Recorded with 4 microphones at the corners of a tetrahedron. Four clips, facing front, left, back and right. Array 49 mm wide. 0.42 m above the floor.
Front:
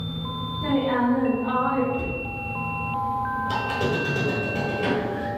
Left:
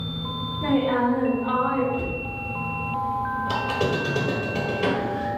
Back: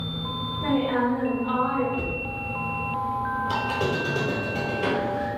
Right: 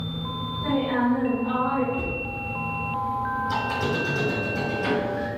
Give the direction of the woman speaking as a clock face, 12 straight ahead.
8 o'clock.